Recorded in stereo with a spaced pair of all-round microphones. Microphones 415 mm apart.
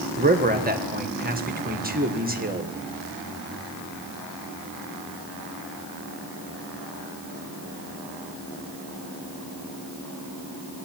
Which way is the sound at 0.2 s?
20° right (ahead or behind).